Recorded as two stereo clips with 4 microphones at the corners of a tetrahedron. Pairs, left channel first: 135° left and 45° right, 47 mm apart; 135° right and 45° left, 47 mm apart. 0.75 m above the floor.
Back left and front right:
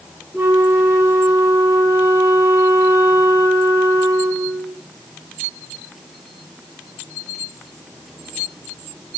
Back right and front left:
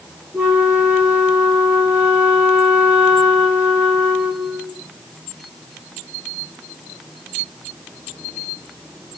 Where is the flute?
15° right, 2.5 m.